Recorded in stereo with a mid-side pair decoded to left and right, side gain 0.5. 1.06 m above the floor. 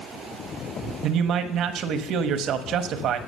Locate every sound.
1.0 s a man speaking: 65° right, 1.1 m